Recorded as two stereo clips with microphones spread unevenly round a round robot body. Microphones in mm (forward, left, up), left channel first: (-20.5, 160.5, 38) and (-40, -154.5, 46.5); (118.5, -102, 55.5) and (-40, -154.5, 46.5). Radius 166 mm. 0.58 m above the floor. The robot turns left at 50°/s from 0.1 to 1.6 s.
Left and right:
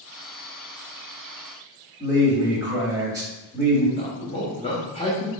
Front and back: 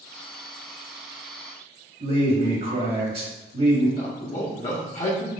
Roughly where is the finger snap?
I don't hear a finger snap.